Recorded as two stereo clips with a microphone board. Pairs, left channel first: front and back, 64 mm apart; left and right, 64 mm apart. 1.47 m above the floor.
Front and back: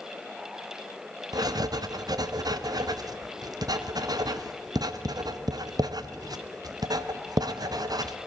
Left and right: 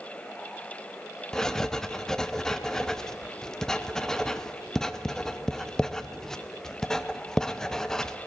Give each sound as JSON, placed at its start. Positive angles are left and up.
{"t": 1.3, "sound": "writing", "azimuth_deg": 170, "distance_m": 0.5}